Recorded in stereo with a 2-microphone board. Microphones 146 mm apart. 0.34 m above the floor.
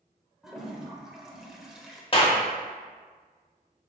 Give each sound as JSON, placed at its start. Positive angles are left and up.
{"t": 0.4, "sound": "a toilet flushing", "side_deg": 0, "distance_m": 0.6}
{"t": 2.1, "sound": "a clap", "side_deg": 35, "distance_m": 0.8}